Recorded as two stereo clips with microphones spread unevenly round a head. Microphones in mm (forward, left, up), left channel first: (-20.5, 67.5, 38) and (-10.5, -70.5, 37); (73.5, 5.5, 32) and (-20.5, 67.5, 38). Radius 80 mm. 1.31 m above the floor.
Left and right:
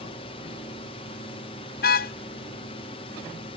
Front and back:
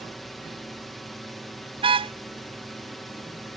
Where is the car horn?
110° left.